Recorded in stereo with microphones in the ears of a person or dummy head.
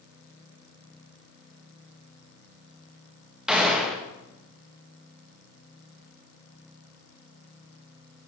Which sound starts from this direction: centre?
A gunshot, at 3.5 s.